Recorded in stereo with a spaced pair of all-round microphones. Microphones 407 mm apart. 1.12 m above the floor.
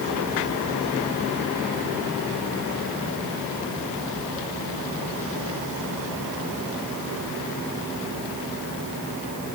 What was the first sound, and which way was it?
Only background noise.